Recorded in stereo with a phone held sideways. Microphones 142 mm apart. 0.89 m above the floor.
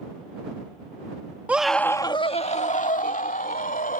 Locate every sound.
1.5 s a scream: 10° right (ahead or behind); by 4.0 s 80° left